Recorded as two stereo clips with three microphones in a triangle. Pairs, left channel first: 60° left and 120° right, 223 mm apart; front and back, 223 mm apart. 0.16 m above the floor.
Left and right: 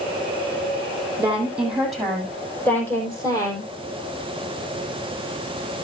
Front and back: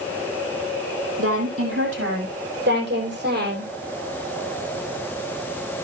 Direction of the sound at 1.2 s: 155° left.